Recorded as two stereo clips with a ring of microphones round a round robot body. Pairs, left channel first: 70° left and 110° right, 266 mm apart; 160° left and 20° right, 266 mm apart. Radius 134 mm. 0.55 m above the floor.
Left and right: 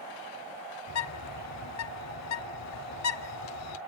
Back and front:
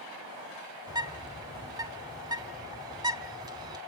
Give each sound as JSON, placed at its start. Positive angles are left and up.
{"t": 0.9, "sound": "a bird", "azimuth_deg": 50, "distance_m": 1.1}